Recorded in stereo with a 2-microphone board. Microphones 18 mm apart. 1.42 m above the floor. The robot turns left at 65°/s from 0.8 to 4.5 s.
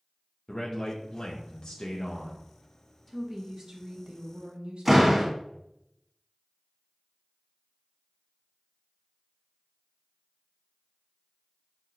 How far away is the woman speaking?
About 0.9 m.